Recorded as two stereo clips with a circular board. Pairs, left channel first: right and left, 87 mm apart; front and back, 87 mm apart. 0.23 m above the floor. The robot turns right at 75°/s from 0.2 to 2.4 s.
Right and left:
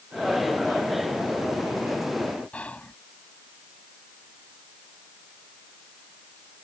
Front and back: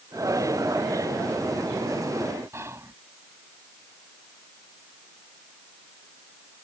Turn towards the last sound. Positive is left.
turn(degrees=-155)